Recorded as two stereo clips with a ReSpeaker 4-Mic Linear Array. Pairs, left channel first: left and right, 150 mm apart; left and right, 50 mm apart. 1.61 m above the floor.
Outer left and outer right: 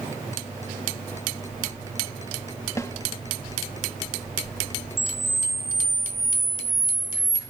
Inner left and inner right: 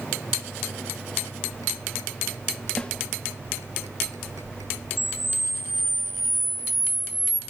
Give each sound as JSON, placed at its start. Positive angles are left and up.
{"t": 2.8, "sound": "a snare drum", "side_deg": 20, "distance_m": 2.0}
{"t": 5.0, "sound": "a camera shutter", "side_deg": 0, "distance_m": 3.5}